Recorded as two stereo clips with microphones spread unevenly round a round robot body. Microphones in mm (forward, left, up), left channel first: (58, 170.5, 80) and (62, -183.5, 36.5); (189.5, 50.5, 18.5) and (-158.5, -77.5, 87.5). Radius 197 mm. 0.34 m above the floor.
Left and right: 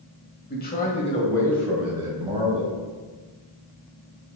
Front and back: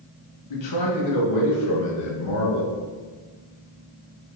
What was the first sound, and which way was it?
A man speaking, 30° left.